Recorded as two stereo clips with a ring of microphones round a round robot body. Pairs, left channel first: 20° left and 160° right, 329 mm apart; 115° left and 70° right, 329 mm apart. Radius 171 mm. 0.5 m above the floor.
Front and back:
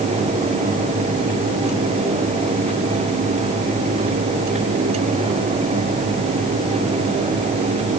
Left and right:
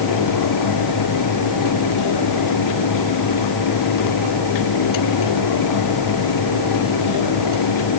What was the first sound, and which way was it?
Only background noise.